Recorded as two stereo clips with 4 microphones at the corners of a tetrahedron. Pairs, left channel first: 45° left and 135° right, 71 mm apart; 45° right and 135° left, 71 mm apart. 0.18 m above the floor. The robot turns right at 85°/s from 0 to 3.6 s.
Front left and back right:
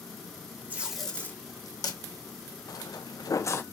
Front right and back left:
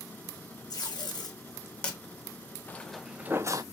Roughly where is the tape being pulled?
Right.